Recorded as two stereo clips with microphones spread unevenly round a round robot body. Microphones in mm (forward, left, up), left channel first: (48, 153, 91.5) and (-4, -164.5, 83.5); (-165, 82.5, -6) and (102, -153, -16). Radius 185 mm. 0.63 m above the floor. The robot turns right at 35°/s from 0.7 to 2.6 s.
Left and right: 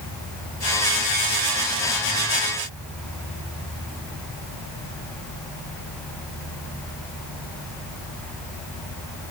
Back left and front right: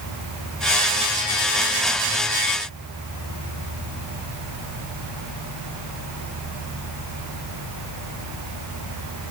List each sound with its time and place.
Only background noise.